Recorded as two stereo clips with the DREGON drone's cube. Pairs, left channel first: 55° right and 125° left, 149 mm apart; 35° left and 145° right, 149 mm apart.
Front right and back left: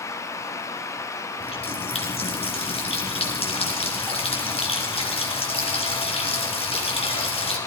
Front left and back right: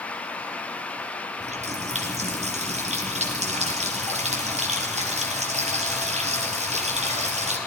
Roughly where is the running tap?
Right.